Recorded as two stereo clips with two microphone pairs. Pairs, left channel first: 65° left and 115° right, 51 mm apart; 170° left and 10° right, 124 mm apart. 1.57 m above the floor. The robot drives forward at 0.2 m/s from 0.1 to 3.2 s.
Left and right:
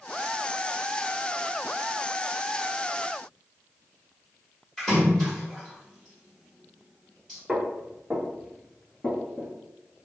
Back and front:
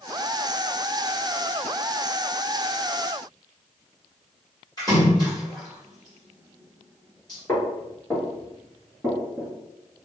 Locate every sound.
4.8 s a splash: 140° left, 1.4 m
7.5 s footsteps: 155° right, 1.6 m; by 9.5 s 60° left, 1.6 m